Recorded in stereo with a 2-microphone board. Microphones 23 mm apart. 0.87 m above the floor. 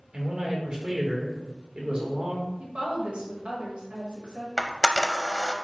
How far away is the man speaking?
About 2.5 m.